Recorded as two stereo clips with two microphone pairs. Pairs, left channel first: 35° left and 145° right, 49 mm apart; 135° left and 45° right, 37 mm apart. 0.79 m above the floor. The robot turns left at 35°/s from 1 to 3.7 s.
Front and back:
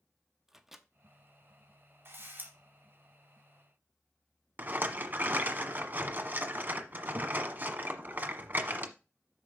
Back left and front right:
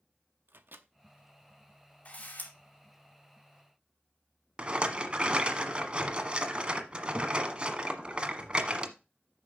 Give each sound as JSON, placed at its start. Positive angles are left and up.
{"t": 0.5, "sound": "a microwave", "azimuth_deg": -65, "distance_m": 0.8}
{"t": 2.0, "sound": "a camera shutter", "azimuth_deg": -175, "distance_m": 2.5}
{"t": 4.6, "sound": "a rattle", "azimuth_deg": -100, "distance_m": 1.3}